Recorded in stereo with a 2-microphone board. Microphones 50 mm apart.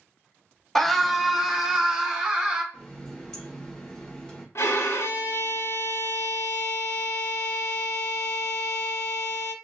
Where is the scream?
5° left (ahead or behind), 0.7 m; by 2.6 s 20° right (ahead or behind), 1.5 m.